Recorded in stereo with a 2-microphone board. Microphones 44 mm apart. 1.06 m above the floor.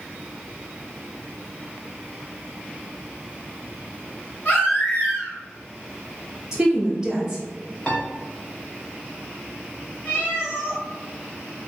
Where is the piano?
20° left (ahead or behind), 0.7 m.